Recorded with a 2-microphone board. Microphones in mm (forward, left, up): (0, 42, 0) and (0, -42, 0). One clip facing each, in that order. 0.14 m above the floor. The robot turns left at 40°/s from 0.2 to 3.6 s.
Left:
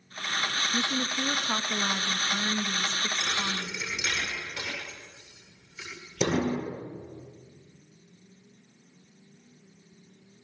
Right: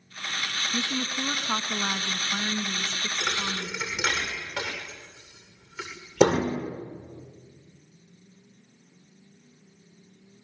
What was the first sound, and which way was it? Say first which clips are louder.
A woman speaking: right 2 dB; 25° right (ahead or behind).